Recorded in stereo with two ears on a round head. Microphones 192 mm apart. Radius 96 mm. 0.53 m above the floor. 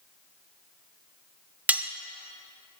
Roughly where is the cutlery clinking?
Centre.